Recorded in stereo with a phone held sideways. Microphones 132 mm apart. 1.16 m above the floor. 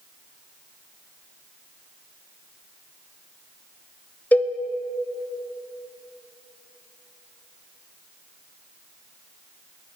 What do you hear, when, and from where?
4.3 s a cowbell: 10° left (ahead or behind), 0.5 m